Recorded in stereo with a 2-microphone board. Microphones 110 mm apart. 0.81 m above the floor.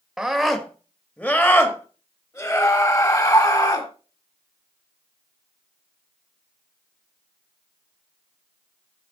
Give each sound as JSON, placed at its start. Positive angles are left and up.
{"t": 0.2, "sound": "a scream", "side_deg": -5, "distance_m": 1.3}